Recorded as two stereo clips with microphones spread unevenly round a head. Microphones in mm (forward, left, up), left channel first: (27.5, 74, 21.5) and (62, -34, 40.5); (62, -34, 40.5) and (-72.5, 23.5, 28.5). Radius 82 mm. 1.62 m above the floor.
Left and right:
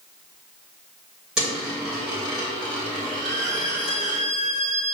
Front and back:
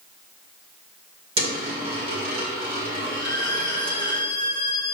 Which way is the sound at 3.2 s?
85° right.